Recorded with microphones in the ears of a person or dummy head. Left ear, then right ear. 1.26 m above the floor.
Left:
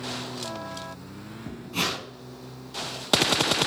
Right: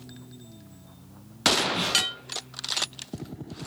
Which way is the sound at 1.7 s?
40° left (ahead or behind).